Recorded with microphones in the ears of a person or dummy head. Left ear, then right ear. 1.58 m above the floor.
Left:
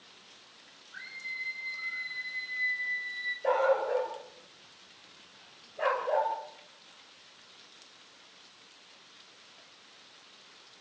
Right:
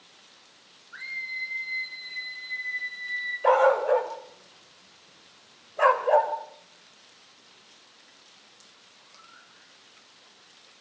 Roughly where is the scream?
Right.